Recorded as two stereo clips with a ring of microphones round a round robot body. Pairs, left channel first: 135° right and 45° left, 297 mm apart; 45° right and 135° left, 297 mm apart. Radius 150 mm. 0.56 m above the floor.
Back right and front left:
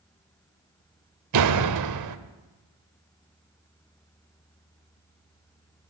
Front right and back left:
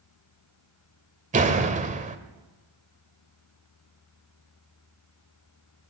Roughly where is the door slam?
Left.